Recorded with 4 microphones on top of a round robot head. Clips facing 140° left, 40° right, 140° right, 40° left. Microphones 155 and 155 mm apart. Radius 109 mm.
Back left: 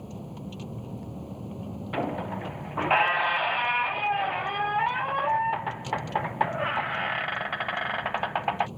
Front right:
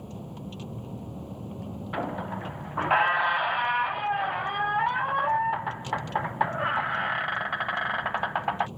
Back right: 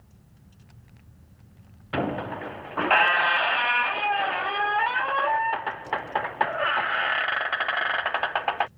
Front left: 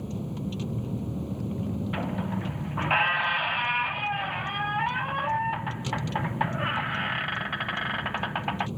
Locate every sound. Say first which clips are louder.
0.0 s a vehicle: even, front left 25 dB; 50° left
1.9 s a squeak: back left 2 dB, back right 2 dB; 155° right